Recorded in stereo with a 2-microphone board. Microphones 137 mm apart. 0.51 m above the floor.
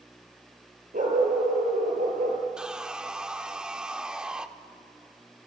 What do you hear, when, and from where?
0.9 s a dog barking: 80° right, 4 m; by 2.4 s 60° right (ahead or behind), 3.5 m
2.6 s sawing: 5° right (ahead or behind), 0.6 m